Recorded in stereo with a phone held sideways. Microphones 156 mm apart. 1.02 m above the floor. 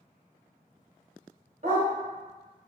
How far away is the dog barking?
About 1.2 m.